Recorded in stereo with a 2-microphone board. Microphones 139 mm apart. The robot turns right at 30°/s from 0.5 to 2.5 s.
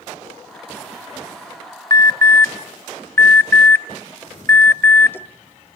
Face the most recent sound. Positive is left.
turn(degrees=15)  # may be behind; listen again after turning